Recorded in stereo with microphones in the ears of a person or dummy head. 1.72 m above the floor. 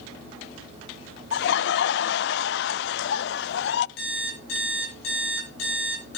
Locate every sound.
1.3 s laughter: 70° left (ahead or behind), 0.5 m
4.0 s an alarm clock: 75° left (ahead or behind), 8 m